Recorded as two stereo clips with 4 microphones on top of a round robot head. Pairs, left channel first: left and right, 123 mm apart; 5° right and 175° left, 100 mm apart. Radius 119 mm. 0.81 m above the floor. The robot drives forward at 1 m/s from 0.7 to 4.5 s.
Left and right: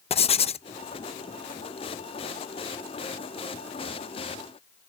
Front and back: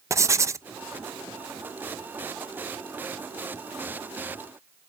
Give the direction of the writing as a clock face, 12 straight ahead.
8 o'clock.